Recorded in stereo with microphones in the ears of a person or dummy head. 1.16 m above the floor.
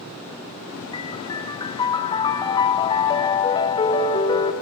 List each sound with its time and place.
0.9 s a piano: 20° left (ahead or behind), 0.7 m